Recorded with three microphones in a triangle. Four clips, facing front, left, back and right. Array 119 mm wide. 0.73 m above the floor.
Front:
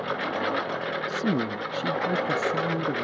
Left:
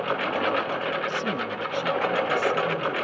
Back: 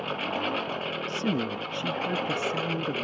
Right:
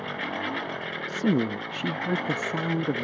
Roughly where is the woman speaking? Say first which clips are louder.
Right 3 dB, front 2 dB; right.